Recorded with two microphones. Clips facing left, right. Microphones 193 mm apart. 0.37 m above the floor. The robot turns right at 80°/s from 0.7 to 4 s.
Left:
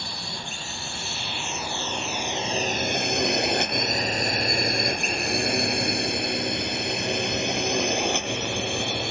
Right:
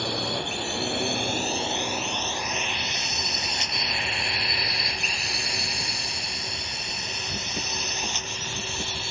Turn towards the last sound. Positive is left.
turn(degrees=70)  # may be behind; listen again after turning